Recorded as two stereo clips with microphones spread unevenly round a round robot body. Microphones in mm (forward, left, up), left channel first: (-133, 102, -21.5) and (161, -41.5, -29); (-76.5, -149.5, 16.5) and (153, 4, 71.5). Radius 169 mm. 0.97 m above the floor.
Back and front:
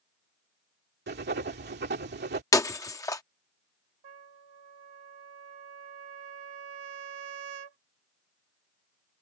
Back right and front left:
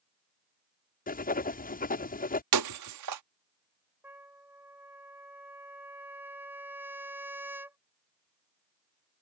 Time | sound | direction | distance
1.1 | writing | 90° right | ?
2.5 | breaking glass | 75° left | ?
4.0 | a trumpet | 50° right | ?